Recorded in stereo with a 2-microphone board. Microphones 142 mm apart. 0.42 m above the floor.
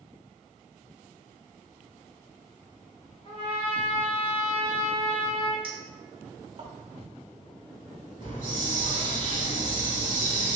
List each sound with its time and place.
3.2 s a trumpet: 45° left (ahead or behind), 1.1 m
5.6 s a clink: 40° right (ahead or behind), 0.7 m
8.2 s a hiss: 70° left (ahead or behind), 0.9 m